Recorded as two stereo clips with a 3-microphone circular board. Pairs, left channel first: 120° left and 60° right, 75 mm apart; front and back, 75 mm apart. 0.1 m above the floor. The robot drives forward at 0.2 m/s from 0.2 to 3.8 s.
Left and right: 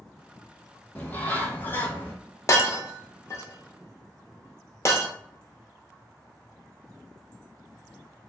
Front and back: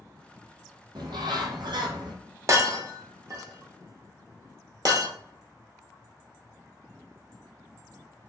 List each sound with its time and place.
0.9 s a bird: 175° right, 0.5 m
2.5 s breaking glass: 150° left, 0.5 m; by 5.1 s 160° left, 0.7 m